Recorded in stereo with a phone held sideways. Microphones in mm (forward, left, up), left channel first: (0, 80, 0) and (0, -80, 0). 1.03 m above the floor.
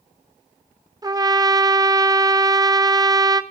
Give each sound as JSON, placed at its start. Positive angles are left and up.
{"t": 1.0, "sound": "a trumpet", "side_deg": -25, "distance_m": 0.7}